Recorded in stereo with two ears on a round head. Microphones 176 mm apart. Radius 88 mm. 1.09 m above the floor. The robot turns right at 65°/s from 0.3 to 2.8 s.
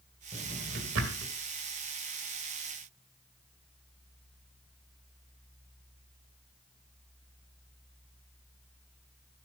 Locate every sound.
0.3 s a drawer: 30° right (ahead or behind), 2 m; by 1.3 s 75° right (ahead or behind), 2 m